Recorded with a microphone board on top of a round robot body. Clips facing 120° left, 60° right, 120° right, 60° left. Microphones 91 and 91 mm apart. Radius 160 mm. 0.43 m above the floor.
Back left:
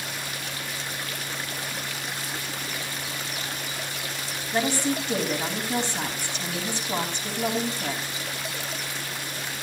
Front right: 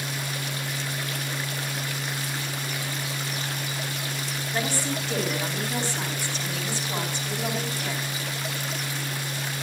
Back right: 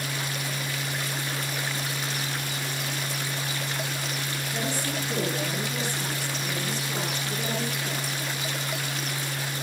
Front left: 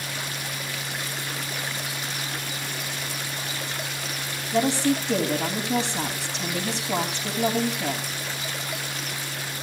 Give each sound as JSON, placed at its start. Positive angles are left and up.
{"t": 4.5, "sound": "a woman speaking", "azimuth_deg": 50, "distance_m": 4.0}